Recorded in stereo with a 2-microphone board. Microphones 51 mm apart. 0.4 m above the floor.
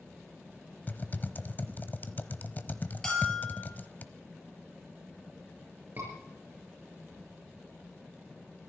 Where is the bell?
15° left (ahead or behind), 9.5 m.